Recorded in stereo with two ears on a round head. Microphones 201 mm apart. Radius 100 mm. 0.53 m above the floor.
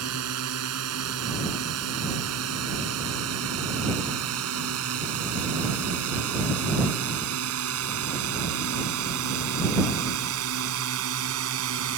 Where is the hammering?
No hammering in this recording.